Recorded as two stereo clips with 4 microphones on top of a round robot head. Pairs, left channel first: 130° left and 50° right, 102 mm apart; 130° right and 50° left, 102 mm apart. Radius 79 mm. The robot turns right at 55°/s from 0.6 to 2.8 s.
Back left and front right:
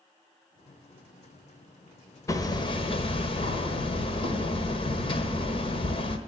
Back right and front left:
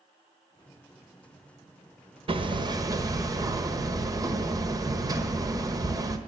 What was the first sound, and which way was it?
Hammering, 70° left.